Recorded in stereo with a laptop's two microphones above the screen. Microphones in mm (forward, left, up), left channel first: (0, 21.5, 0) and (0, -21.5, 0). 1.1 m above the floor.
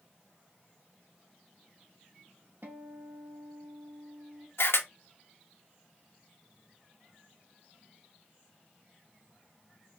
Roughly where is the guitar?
Right.